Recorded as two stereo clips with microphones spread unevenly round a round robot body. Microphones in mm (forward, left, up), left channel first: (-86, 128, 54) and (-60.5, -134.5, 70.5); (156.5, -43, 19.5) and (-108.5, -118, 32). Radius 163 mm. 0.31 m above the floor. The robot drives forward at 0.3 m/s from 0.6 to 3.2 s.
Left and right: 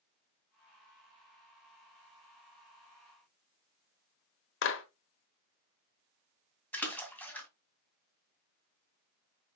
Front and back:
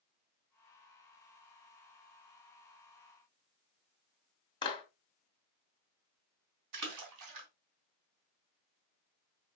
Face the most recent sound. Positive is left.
turn(degrees=180)